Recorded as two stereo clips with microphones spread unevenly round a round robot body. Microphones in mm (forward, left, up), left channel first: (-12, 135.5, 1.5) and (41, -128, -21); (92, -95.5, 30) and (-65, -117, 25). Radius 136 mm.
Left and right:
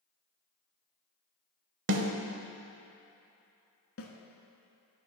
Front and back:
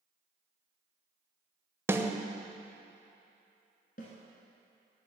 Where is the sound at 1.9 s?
100° right, 0.7 m.